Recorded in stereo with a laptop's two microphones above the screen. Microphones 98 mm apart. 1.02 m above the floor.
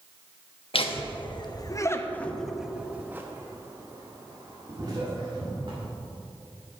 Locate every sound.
0.7 s laughter: 70° left (ahead or behind), 1.2 m; by 5.8 s 50° right (ahead or behind), 2.5 m